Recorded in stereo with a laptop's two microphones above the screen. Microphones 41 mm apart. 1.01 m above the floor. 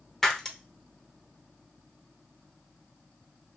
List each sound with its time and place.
0.2 s breaking glass: 10° left (ahead or behind), 0.7 m